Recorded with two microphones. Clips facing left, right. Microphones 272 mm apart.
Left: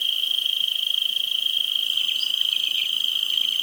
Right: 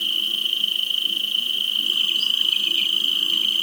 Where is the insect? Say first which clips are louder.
Right 10 dB; 75° right (ahead or behind).